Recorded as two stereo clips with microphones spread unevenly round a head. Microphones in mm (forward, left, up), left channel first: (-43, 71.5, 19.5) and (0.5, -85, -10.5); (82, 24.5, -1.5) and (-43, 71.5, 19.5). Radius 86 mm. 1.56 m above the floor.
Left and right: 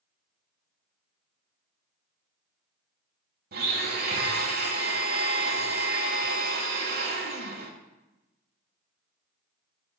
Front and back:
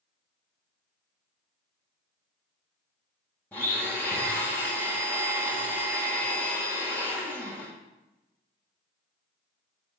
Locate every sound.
3.5 s a blender: 105° right, 1.7 m